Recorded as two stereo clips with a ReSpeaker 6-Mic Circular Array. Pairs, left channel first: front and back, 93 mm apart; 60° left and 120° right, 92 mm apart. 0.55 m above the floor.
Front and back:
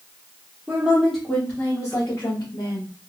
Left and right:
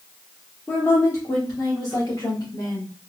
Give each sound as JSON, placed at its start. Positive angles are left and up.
{"t": 0.7, "sound": "a woman speaking", "azimuth_deg": 120, "distance_m": 0.9}